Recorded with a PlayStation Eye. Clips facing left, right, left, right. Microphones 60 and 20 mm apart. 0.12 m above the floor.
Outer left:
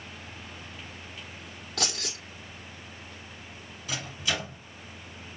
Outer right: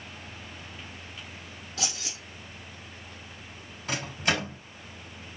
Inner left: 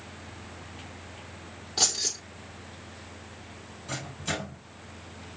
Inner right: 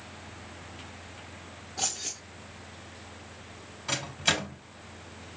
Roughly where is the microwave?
Right.